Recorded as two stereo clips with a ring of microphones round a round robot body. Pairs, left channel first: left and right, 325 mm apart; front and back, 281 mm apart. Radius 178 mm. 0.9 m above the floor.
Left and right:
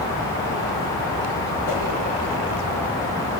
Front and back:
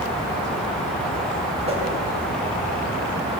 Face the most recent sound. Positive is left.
turn(degrees=110)